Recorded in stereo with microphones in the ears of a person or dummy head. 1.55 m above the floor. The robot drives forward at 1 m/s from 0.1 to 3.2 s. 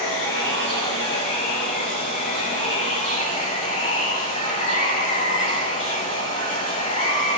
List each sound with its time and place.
0.0 s running water: 60° left (ahead or behind), 4.5 m; by 7.4 s 40° left (ahead or behind), 6 m